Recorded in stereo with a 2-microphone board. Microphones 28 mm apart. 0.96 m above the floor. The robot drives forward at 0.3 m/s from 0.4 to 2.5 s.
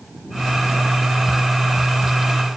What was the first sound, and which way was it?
Only background noise.